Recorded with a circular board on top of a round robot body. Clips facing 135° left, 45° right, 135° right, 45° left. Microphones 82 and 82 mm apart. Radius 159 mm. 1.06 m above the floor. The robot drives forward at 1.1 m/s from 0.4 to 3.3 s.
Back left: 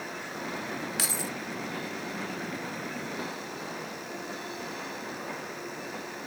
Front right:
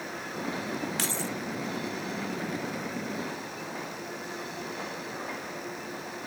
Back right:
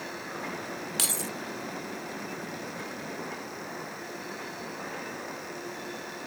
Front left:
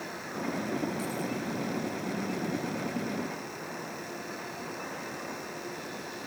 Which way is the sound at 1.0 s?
140° right.